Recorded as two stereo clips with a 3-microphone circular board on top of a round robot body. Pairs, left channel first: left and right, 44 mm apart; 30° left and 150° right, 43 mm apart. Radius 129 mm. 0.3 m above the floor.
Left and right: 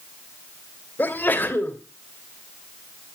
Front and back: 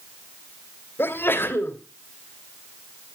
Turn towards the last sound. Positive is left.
turn(degrees=50)